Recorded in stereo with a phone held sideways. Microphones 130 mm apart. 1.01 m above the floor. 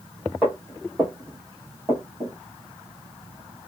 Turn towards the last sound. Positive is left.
turn(degrees=-25)  # may be behind; listen again after turning